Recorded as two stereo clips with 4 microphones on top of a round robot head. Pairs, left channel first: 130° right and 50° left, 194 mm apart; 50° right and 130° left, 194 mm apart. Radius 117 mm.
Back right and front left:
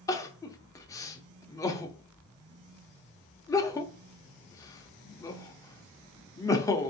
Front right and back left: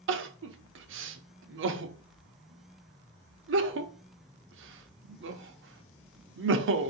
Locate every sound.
0.1 s crying: 155° left, 0.7 m